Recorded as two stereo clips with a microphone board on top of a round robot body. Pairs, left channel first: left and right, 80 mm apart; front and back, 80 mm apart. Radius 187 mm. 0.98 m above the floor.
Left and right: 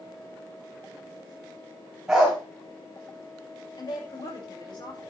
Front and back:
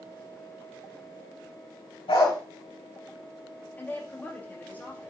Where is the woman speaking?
70° left, 5.5 m.